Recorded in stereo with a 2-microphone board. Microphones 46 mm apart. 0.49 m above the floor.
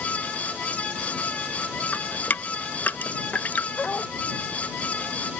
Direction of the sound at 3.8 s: 30° left (ahead or behind).